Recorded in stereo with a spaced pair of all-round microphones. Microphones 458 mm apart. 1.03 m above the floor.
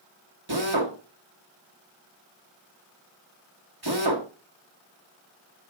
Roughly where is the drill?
Right.